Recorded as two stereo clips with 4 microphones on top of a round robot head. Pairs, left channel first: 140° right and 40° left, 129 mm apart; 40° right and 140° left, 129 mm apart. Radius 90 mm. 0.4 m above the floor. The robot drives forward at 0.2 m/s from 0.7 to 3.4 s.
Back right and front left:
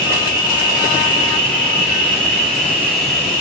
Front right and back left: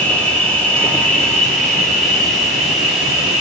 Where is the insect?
115° right, 1.8 m; by 3.4 s 135° right, 2 m.